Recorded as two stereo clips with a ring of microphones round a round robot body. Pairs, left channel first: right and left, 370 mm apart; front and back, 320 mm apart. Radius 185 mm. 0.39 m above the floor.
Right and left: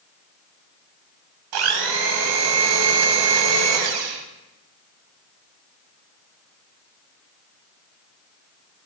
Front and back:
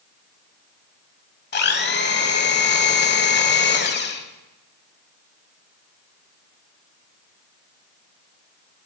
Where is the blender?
60° left, 0.9 m.